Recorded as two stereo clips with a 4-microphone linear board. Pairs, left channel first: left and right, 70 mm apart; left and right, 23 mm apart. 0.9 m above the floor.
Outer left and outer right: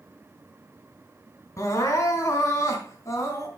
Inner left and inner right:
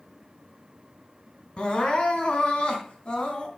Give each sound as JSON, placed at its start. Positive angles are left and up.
{"t": 1.6, "sound": "crying", "side_deg": 45, "distance_m": 3.0}